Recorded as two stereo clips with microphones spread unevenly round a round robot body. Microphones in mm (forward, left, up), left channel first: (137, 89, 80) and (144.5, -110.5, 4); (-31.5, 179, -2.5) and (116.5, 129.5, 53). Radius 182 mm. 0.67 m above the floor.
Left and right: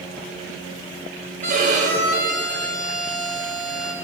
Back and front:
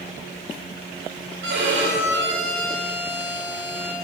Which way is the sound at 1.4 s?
45° right.